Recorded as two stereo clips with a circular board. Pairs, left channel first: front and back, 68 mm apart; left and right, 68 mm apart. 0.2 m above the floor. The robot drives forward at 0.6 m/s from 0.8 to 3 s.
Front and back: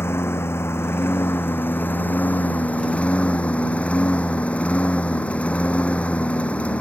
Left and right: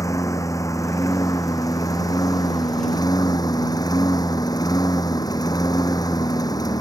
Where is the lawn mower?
50° left; by 6.8 s 70° left.